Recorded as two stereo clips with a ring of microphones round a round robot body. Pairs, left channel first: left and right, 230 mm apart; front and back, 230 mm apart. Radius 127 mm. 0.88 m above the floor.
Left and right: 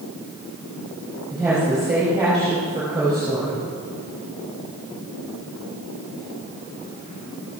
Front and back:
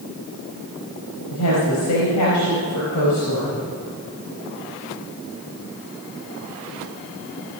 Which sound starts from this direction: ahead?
A woman speaking, at 1.3 s.